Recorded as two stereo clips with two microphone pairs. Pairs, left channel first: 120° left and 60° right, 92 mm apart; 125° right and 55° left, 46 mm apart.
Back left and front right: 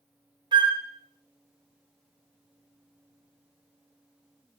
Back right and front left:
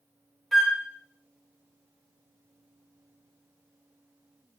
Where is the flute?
35° right, 0.5 m.